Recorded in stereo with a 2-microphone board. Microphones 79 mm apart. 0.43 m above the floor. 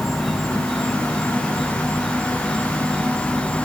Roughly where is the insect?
Centre.